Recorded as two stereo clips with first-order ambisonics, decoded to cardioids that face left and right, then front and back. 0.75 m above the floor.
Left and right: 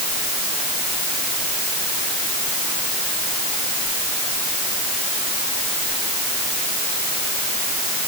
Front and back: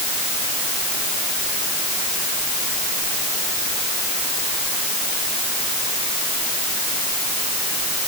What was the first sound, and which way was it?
Only background noise.